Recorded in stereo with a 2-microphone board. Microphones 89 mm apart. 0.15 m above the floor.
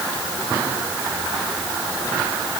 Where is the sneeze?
No sneeze in this recording.